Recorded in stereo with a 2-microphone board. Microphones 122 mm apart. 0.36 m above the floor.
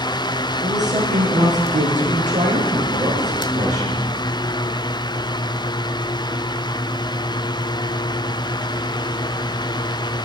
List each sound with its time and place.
0.6 s a woman speaking: 80° right, 8.5 m; by 4.1 s 75° right (ahead or behind), 5.5 m